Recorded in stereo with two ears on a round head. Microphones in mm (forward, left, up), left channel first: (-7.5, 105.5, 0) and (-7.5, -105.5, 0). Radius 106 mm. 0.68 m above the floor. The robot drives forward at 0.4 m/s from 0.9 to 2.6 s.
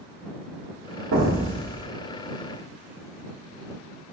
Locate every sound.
1.1 s an explosion: 60° right (ahead or behind), 0.7 m; by 1.9 s 45° right (ahead or behind), 0.8 m